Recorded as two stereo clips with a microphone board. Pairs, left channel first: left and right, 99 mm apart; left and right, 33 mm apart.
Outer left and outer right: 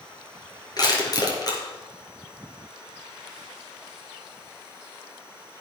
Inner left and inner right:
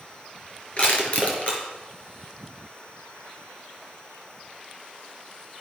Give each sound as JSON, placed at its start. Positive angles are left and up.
{"t": 0.8, "sound": "crushing", "side_deg": 40, "distance_m": 4.5}